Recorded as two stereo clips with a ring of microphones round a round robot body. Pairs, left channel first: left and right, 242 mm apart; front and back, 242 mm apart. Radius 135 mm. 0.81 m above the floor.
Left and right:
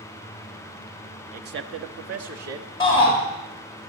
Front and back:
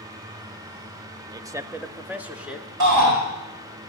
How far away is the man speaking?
About 0.7 m.